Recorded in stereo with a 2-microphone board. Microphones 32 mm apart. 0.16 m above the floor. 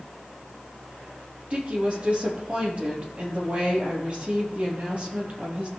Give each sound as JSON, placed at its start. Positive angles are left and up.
{"t": 1.5, "sound": "a woman speaking", "side_deg": -40, "distance_m": 4.0}